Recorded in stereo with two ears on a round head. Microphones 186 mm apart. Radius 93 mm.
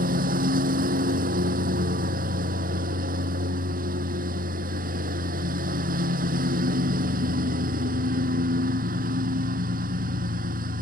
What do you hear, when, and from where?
0.0 s a lawn mower: 45° right (ahead or behind)